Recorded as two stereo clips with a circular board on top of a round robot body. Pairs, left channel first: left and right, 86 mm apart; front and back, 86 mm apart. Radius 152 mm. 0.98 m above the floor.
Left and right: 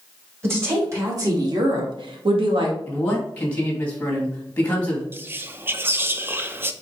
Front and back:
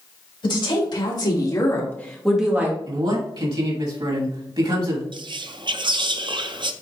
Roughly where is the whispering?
Behind right.